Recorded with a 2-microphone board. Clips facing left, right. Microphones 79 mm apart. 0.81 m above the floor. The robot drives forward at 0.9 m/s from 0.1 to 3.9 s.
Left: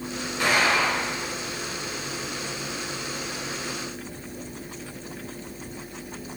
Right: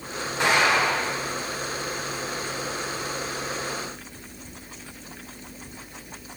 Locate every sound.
0.4 s an explosion: 20° right (ahead or behind), 5 m; by 1.3 s 25° right (ahead or behind), 4 m